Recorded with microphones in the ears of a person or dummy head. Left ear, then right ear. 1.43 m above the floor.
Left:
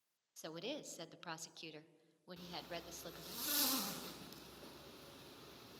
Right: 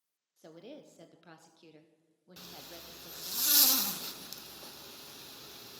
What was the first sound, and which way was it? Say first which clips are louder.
A woman speaking: left 4 dB; 45° left (ahead or behind).